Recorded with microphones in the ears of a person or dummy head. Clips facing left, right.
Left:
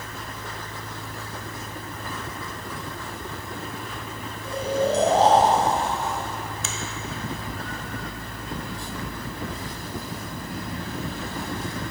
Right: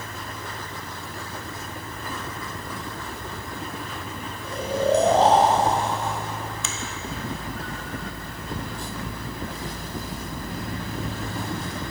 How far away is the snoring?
About 1.3 m.